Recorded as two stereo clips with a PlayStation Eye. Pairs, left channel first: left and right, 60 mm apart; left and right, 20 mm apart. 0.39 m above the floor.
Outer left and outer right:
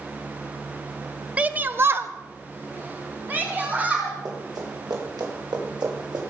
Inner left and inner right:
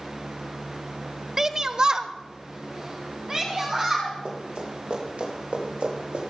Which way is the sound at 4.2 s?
70° right (ahead or behind).